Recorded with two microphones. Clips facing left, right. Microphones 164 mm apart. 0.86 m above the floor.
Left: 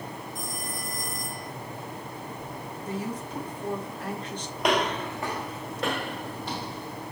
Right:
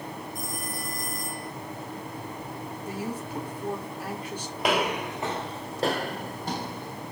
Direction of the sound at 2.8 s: 10° right (ahead or behind).